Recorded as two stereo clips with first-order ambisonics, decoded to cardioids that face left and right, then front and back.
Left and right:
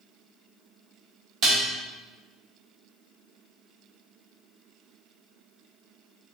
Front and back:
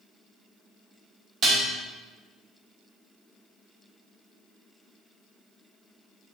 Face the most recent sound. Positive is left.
turn(degrees=-135)